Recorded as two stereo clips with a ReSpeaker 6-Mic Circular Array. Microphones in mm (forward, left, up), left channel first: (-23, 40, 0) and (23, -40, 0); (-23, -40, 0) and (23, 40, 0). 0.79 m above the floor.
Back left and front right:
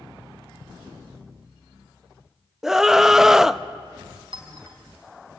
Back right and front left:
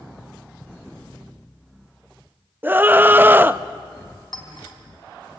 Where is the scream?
20° left, 0.6 m.